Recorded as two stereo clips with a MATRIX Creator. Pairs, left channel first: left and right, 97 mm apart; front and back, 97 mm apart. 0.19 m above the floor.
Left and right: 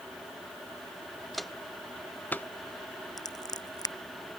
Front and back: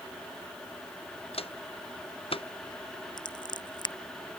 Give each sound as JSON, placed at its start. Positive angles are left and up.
{"t": 1.3, "sound": "footsteps", "azimuth_deg": 0}
{"t": 3.2, "sound": "scissors", "azimuth_deg": 40}